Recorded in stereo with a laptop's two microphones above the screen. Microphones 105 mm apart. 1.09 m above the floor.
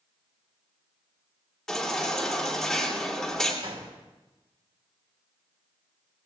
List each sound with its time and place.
1.7 s a baby crying: 5° left (ahead or behind), 2.5 m
3.6 s a gunshot: 70° right (ahead or behind), 3.5 m